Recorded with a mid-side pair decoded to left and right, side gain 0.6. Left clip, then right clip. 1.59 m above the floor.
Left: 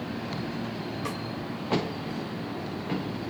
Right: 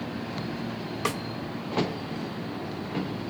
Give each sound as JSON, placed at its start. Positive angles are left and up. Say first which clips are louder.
{"t": 1.1, "sound": "a snare drum", "louder": "right 8 dB", "azimuth_deg": -50, "distance_m": 2.0}